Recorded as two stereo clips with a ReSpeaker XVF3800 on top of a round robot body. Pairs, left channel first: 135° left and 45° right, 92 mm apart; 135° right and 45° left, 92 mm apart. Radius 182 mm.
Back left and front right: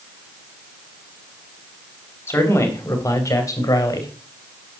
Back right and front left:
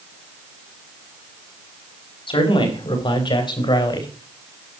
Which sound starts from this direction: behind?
A man speaking, at 2.3 s.